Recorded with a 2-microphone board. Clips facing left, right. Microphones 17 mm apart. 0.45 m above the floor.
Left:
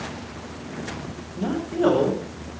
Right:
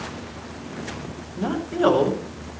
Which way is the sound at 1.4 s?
40° right (ahead or behind).